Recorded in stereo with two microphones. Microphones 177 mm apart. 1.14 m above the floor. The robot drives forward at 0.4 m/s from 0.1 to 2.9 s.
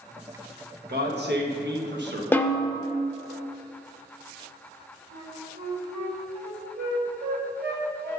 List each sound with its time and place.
0.9 s a man speaking: 65° right (ahead or behind), 1.2 m; by 2.2 s 75° right (ahead or behind), 1.1 m
2.3 s a snare drum: 10° left (ahead or behind), 0.5 m; by 2.7 s 15° left (ahead or behind), 0.5 m
5.1 s a flute: 65° right (ahead or behind), 2.5 m